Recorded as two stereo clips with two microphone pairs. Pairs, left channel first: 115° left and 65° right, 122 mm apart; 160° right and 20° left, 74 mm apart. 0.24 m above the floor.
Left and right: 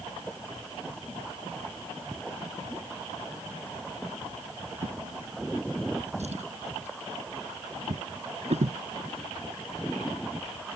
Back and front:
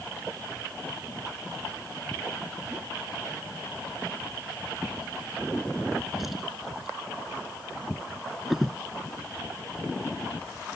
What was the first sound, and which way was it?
A drawer, 65° right.